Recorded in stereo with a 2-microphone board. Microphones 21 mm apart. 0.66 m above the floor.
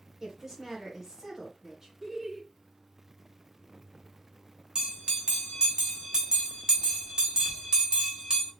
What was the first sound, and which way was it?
A woman speaking, 25° right (ahead or behind).